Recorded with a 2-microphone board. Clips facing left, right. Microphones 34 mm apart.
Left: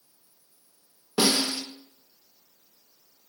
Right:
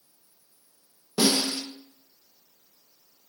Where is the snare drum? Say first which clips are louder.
Even; 20° left (ahead or behind), 0.5 m.